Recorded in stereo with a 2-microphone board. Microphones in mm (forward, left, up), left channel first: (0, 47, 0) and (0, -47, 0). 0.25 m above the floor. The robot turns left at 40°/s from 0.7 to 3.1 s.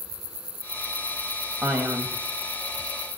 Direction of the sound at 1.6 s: 20° right (ahead or behind).